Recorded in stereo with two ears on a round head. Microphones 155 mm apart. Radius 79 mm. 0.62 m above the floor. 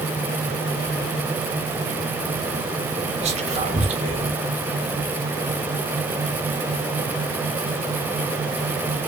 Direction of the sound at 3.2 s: 40° right (ahead or behind).